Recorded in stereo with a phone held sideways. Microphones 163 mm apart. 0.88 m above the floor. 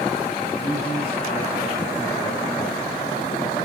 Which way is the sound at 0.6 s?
45° left (ahead or behind).